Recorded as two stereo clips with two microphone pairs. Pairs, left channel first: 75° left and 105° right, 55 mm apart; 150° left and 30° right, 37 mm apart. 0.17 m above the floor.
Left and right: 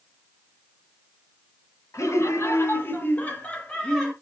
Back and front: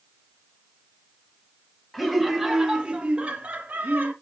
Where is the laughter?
60° left, 3 m; by 4.1 s 15° right, 3 m.